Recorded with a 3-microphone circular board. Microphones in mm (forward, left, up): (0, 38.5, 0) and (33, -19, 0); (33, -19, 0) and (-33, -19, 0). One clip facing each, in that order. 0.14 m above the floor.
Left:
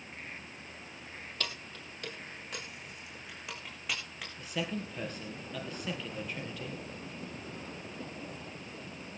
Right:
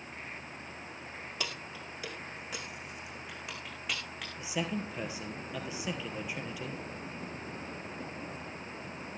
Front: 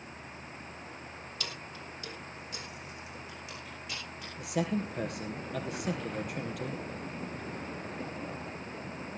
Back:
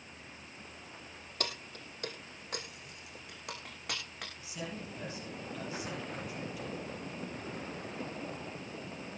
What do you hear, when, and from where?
1.4 s keys jangling: 140° right, 2.5 m; by 4.3 s 150° right, 6 m
4.4 s a man speaking: 20° left, 3 m